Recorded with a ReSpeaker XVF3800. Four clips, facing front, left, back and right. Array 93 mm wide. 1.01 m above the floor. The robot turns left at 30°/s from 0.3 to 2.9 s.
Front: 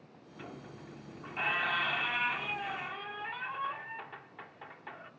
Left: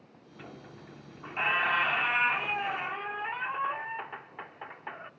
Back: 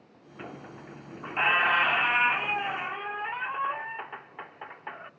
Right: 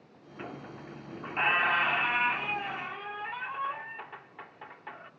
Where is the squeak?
140° right, 0.6 m; by 5.1 s 145° left, 0.6 m.